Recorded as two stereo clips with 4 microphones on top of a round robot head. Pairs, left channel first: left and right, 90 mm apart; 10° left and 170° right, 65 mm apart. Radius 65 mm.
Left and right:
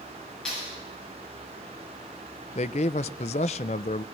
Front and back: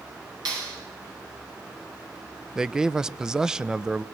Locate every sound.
0.5 s a clap: 175° left, 8.5 m
2.5 s a man speaking: 110° left, 0.6 m